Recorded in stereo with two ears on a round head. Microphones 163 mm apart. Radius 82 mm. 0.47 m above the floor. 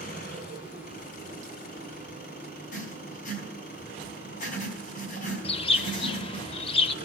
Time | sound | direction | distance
0.0 | an engine running | 55° left (ahead or behind) | 4 m
2.7 | writing | 45° left (ahead or behind) | 4 m
5.4 | a bird | 30° left (ahead or behind) | 0.6 m